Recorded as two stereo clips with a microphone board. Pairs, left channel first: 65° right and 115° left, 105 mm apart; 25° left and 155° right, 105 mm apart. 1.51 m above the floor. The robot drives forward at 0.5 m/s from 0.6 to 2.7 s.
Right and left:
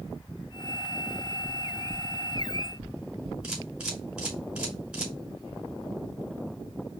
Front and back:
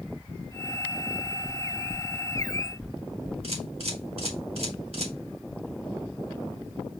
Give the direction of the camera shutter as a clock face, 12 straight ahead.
6 o'clock.